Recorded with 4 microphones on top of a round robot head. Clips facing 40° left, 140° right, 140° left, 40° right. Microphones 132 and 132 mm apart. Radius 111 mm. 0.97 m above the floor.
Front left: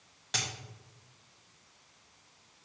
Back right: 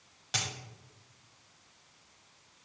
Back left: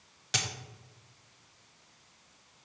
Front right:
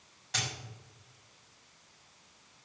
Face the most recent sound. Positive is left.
turn(degrees=135)